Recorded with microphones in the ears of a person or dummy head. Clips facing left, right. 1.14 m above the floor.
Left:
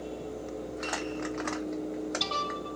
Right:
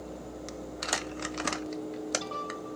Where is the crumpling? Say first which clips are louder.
Left 2 dB; 35° right (ahead or behind), 0.6 m.